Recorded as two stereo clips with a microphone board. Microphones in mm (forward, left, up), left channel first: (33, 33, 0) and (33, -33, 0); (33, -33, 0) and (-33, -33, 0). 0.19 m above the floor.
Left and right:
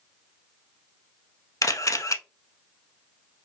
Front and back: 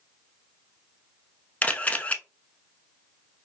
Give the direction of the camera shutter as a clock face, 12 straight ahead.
10 o'clock.